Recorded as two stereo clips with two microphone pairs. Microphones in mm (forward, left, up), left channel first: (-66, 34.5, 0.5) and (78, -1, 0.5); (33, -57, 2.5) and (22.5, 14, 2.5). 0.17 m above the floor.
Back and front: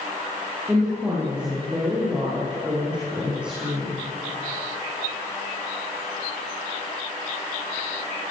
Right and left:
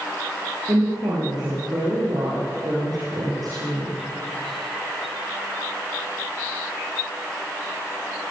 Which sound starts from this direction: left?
A woman speaking, at 0.7 s.